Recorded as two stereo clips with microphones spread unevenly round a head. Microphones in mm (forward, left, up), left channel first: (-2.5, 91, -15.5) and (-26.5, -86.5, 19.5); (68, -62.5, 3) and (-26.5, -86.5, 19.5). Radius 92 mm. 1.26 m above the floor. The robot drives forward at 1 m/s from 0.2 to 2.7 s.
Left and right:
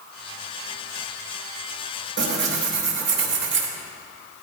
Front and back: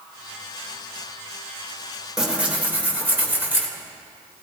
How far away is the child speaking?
I don't hear a child speaking.